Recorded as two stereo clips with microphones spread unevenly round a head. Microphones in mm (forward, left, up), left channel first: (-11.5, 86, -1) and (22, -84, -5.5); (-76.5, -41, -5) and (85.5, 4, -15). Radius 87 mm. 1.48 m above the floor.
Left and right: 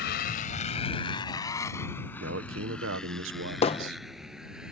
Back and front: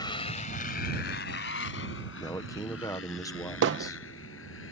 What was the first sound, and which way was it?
A motorcycle, 130° left.